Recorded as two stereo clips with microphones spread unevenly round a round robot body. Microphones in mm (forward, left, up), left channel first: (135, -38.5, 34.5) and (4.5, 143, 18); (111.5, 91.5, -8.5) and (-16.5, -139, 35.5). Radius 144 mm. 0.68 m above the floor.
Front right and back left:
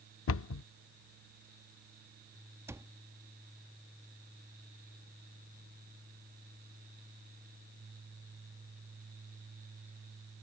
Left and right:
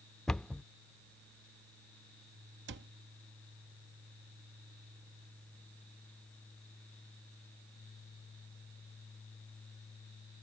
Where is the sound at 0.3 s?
25° right.